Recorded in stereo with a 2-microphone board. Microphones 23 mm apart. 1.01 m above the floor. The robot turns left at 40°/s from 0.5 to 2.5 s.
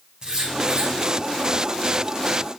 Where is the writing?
35° right (ahead or behind), 4.5 m; by 0.9 s 50° right (ahead or behind), 4.5 m.